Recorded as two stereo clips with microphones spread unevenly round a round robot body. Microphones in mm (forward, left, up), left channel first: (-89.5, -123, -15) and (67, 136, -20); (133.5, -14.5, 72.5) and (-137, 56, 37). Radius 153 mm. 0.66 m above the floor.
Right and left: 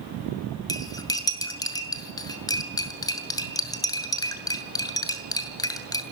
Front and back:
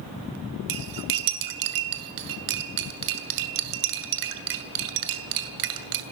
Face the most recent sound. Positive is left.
turn(degrees=160)